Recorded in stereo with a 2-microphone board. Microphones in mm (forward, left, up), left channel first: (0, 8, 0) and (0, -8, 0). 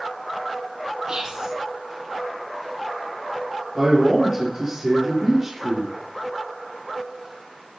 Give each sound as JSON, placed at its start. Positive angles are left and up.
{"t": 1.1, "sound": "whispering", "side_deg": -65, "distance_m": 3.5}
{"t": 3.8, "sound": "a man speaking", "side_deg": -40, "distance_m": 3.5}